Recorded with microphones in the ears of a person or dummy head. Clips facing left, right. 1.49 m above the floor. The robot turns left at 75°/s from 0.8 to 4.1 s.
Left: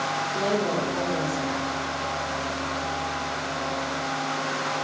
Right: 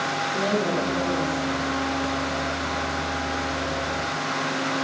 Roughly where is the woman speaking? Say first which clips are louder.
Right 1 dB; behind right.